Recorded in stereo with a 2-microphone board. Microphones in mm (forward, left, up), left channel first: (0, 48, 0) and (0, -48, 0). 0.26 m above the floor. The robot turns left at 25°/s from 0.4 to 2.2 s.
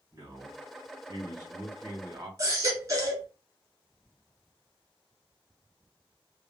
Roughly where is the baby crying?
Right.